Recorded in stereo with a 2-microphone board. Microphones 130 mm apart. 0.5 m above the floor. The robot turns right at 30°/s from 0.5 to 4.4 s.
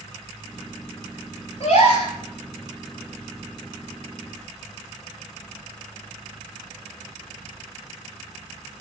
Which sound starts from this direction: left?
A gasp, at 1.6 s.